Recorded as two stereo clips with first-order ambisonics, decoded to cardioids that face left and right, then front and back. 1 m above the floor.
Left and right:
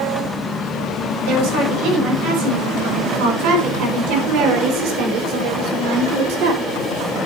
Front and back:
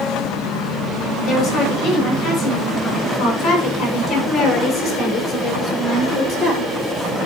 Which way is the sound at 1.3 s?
70° right.